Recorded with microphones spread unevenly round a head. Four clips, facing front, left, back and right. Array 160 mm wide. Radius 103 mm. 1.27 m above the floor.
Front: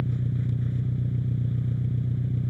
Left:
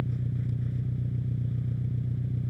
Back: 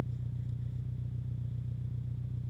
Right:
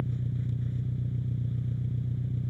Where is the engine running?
10° left.